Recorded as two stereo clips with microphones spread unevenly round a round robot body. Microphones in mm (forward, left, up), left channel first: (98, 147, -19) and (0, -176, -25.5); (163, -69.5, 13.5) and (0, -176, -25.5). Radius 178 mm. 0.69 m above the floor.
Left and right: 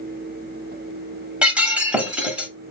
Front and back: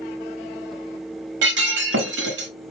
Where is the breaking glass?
165° left, 0.7 m.